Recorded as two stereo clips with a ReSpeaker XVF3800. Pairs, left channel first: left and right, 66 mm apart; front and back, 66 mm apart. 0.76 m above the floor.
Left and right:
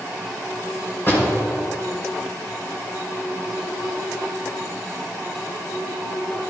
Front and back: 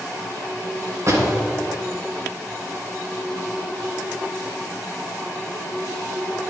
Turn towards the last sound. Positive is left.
turn(degrees=140)